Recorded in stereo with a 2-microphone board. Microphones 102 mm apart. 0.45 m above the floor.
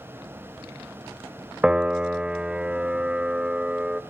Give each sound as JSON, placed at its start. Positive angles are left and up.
{"t": 1.6, "sound": "a piano", "side_deg": -10, "distance_m": 0.5}